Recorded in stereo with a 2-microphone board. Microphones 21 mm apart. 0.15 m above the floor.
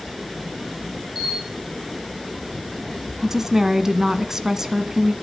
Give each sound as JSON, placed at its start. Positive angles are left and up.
{"t": 1.1, "sound": "a camera shutter", "side_deg": -20, "distance_m": 6.5}
{"t": 3.2, "sound": "a woman speaking", "side_deg": -15, "distance_m": 1.3}